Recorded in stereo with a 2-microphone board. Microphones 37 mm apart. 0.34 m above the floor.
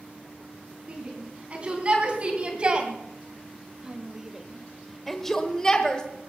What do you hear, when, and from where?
0.9 s a shout: 35° right (ahead or behind), 3.5 m; by 6.0 s 20° left (ahead or behind), 1.7 m